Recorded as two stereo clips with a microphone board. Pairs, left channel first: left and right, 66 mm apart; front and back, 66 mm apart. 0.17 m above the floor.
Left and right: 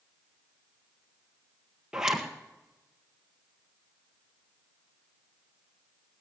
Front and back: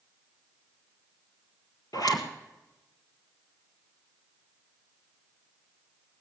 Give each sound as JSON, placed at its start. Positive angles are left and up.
{"t": 1.9, "sound": "a zipper", "azimuth_deg": -10, "distance_m": 1.5}